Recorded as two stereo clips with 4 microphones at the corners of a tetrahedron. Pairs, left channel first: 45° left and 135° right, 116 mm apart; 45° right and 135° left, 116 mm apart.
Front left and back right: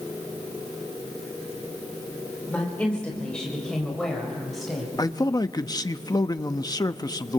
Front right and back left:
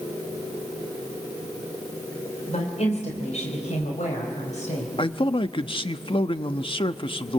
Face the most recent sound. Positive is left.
turn(degrees=-10)